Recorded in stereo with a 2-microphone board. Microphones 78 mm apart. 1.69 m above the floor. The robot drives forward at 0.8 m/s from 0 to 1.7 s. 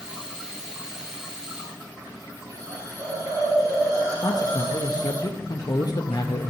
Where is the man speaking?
60° left (ahead or behind), 0.5 m.